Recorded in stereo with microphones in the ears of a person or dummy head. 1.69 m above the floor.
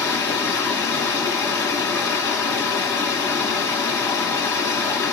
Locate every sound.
0.0 s running water: 20° left (ahead or behind), 2.5 m